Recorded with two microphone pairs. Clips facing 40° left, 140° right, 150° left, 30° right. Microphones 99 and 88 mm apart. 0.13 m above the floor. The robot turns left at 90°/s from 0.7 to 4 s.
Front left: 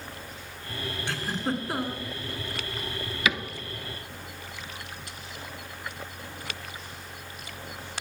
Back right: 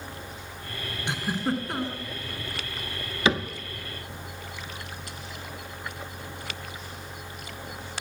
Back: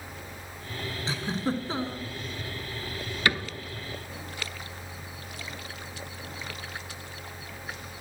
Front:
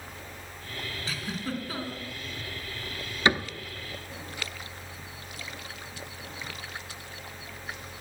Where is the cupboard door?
90° right, 0.6 m; by 3.5 s 115° right, 0.6 m.